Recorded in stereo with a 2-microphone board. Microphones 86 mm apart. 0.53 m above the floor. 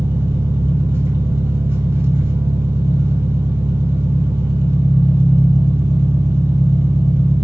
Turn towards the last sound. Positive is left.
turn(degrees=-25)  # may be behind; listen again after turning